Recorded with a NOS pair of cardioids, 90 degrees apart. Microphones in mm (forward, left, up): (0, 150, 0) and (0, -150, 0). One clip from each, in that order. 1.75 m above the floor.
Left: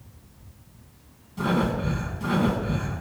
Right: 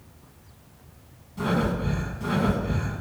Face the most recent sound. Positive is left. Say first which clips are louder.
# left 1 dB
turn(degrees=15)